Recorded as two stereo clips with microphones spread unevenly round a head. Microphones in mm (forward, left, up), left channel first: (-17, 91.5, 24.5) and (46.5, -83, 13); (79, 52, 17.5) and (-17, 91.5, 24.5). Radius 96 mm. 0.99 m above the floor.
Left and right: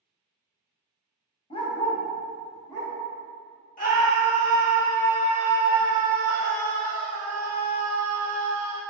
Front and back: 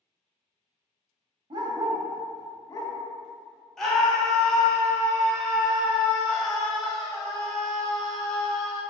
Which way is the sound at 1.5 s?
160° left.